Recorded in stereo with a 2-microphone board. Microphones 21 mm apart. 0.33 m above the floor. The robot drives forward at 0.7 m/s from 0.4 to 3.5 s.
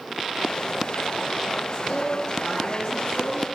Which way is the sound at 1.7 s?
80° left.